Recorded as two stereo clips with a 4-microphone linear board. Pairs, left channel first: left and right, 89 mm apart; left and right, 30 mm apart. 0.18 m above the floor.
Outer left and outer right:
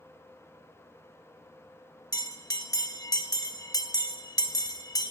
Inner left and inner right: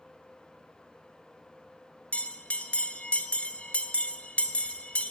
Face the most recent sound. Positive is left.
turn(degrees=45)  # may be behind; listen again after turning